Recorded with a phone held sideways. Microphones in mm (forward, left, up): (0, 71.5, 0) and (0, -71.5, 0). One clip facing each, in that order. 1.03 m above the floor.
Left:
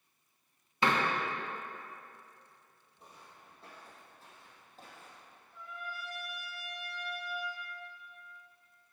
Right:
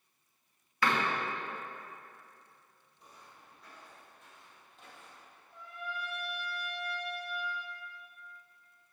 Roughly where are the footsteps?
Left.